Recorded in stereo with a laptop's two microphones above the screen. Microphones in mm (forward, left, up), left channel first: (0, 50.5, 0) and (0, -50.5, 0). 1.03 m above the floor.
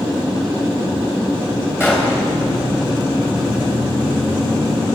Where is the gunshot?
20° left (ahead or behind), 4 m.